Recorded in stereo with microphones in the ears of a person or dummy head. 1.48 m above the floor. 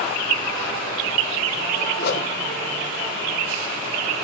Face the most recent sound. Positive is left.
turn(degrees=60)  # may be behind; listen again after turning